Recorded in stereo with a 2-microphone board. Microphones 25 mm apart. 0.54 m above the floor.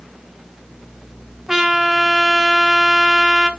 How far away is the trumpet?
About 0.6 m.